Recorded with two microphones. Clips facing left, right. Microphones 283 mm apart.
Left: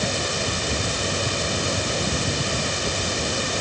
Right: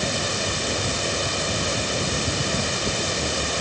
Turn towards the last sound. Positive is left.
No sound to turn to.